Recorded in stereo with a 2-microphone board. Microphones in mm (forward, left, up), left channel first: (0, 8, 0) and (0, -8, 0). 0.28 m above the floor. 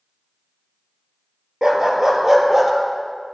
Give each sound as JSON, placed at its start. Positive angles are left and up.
{"t": 1.6, "sound": "a dog barking", "side_deg": -45, "distance_m": 2.0}